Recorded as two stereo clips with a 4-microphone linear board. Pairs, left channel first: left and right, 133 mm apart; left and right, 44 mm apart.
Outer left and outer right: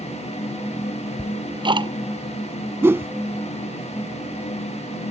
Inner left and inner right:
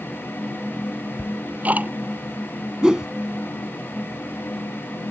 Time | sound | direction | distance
1.2 | ticking | 35° right (ahead or behind) | ?
2.8 | a whoosh | 20° right (ahead or behind) | ?